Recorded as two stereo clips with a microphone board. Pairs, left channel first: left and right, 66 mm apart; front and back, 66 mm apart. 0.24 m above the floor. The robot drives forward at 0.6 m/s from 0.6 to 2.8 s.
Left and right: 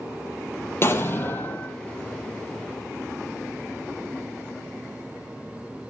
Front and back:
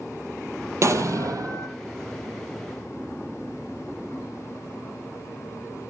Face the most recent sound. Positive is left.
turn(degrees=160)